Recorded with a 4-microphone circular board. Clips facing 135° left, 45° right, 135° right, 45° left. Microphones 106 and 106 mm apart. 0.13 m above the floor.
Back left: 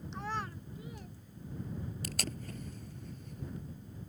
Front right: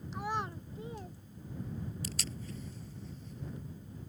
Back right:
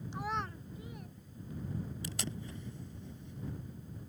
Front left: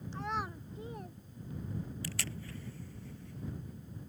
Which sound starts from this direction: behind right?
A child speaking, at 0.1 s.